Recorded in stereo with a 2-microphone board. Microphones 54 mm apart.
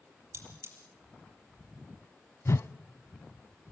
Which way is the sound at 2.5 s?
55° left (ahead or behind).